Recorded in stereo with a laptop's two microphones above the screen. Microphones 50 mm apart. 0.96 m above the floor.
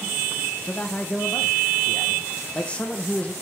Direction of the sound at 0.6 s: 25° left (ahead or behind).